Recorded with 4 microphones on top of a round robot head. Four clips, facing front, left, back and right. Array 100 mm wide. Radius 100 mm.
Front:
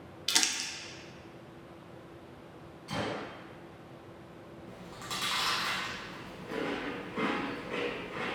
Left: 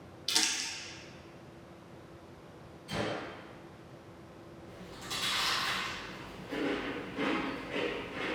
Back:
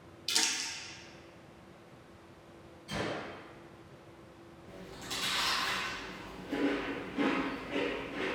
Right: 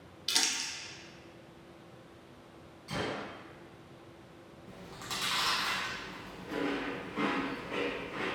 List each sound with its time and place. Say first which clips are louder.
0.3 s crumpling: even, front 2 dB; straight ahead, 0.6 m
2.9 s a gunshot: left 1 dB, front 1 dB; 15° right, 1.9 m
4.7 s chewing: right 2 dB, front 2 dB; 35° right, 0.9 m